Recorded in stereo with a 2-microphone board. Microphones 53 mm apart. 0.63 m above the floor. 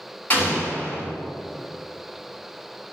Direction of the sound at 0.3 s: 30° left (ahead or behind).